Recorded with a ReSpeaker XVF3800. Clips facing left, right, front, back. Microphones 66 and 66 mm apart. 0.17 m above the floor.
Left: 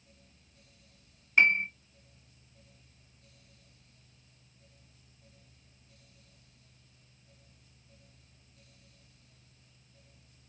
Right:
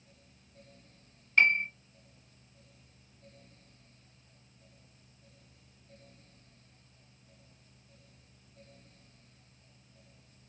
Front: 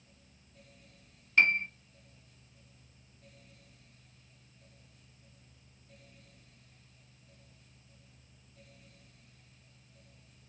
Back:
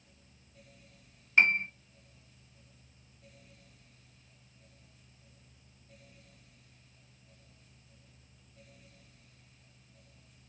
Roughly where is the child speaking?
No child speaking in this recording.